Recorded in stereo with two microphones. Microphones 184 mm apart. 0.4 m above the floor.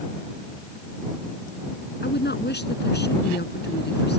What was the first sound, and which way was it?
A woman speaking, 70° left (ahead or behind).